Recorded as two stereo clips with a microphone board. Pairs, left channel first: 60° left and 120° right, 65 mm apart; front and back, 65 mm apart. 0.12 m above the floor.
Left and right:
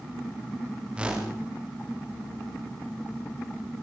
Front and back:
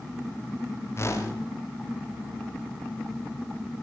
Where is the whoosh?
45° right, 5 m.